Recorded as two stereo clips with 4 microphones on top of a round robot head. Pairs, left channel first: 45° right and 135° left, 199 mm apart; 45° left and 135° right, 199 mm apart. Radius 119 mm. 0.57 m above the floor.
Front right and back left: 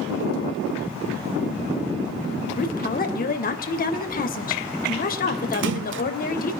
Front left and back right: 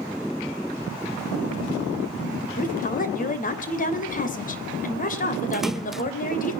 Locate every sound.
2.6 s a woman speaking: straight ahead, 3 m
5.5 s a splash: 135° left, 0.7 m